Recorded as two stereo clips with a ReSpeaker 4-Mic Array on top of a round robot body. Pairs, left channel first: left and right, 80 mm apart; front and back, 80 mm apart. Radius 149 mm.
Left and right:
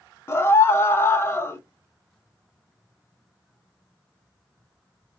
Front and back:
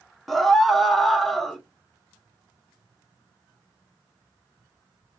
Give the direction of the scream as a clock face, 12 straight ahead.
9 o'clock.